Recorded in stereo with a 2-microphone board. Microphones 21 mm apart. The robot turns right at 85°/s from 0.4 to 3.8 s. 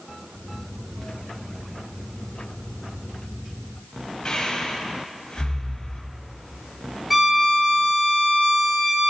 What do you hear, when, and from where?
4.2 s breathing: 40° left (ahead or behind), 2 m
7.1 s a violin: 10° right (ahead or behind), 2 m